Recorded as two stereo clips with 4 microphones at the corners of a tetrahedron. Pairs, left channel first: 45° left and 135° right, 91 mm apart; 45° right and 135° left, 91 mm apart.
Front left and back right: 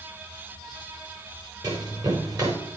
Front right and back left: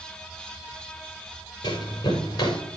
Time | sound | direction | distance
1.6 | running footsteps | 90° right | 6.5 m